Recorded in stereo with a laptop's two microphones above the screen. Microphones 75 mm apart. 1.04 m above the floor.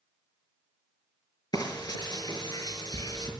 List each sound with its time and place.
1.5 s frying: 65° left (ahead or behind), 5 m